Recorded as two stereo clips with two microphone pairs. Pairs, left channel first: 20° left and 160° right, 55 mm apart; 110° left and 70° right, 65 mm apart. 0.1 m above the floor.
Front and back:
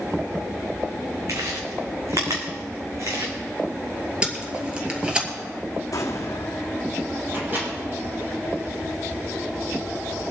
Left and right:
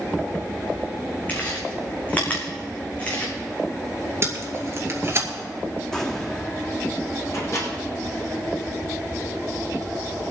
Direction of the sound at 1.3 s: Straight behind.